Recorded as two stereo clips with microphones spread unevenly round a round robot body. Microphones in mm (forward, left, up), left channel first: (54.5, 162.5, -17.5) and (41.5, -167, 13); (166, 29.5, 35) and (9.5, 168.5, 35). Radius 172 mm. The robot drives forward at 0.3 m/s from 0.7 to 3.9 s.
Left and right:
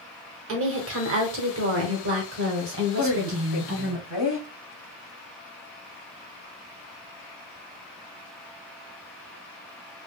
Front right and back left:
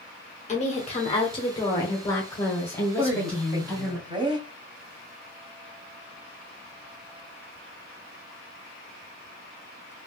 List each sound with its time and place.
0.5 s a woman speaking: 70° right, 1.3 m; by 4.0 s 135° right, 1.4 m
3.0 s a woman speaking: 70° left, 1.4 m; by 4.5 s 85° left, 1.4 m